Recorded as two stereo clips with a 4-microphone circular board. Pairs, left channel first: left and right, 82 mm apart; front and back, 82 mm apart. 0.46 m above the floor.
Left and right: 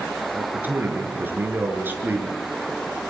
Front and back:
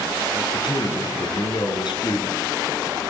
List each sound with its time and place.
0.3 s a man speaking: 20° right, 8 m; by 2.5 s 25° right, 6.5 m